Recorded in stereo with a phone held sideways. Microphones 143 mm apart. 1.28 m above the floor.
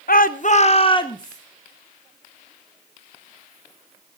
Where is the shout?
80° left, 0.6 m; by 1.4 s 25° left (ahead or behind), 1.0 m.